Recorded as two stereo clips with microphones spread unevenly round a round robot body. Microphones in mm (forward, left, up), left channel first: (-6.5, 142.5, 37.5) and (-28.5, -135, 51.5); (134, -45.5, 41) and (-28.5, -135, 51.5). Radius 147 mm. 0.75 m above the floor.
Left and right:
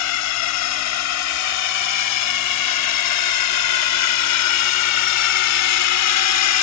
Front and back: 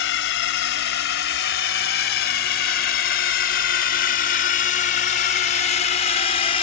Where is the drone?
60° left; by 6.6 s 90° left.